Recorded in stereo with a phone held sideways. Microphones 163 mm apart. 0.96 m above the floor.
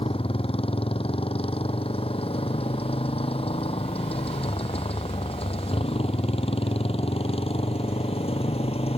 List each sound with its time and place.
0.0 s a motorcycle: 35° left (ahead or behind); by 9.0 s 40° left (ahead or behind)